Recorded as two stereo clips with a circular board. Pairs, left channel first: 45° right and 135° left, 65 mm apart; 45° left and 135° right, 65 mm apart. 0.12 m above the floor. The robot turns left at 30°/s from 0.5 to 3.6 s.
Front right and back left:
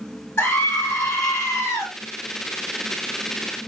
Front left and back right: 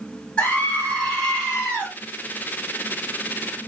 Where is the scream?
5° right, 1.5 m; by 1.9 s 50° right, 1.5 m.